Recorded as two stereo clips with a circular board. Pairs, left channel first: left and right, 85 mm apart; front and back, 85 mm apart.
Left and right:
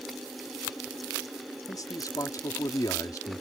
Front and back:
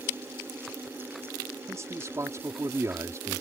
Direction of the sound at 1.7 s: 130° left.